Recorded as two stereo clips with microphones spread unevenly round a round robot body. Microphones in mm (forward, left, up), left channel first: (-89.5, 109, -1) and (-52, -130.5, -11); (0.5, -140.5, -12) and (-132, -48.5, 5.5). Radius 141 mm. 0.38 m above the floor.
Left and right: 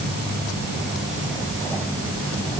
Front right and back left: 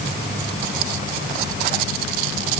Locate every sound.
Only background noise.